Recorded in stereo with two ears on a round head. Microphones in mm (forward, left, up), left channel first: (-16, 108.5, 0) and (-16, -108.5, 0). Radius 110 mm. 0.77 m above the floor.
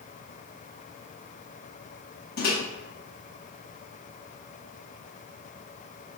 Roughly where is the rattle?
I don't hear a rattle.